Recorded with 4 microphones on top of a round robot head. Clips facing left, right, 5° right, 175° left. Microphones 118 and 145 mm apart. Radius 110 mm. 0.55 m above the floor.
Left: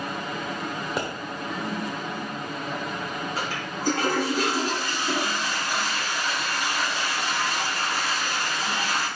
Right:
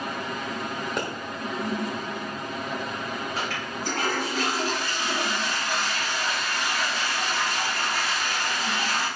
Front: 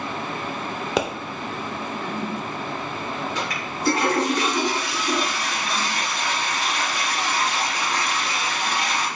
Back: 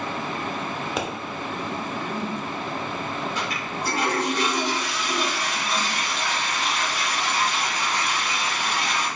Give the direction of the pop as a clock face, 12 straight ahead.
12 o'clock.